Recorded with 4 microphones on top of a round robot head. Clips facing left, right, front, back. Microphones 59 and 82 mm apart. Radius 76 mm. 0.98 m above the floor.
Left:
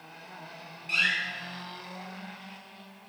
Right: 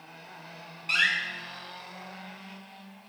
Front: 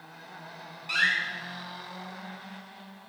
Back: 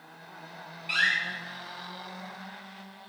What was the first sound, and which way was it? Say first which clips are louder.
A door slam: right 2 dB, even; 70° right.